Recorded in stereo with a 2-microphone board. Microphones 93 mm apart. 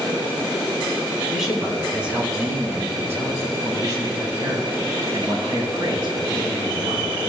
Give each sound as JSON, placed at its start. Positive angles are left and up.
{"t": 1.3, "sound": "a man speaking", "side_deg": -5, "distance_m": 2.5}